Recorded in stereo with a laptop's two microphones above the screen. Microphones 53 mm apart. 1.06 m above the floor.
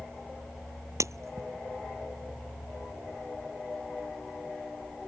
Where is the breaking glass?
70° right (ahead or behind).